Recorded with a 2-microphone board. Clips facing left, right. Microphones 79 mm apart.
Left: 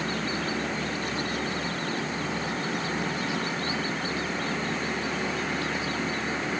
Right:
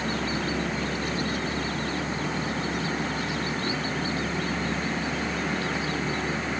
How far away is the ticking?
No ticking in this recording.